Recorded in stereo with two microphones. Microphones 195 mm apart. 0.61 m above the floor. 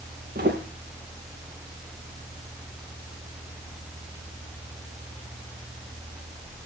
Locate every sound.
0.3 s footsteps: 50° right (ahead or behind), 3.5 m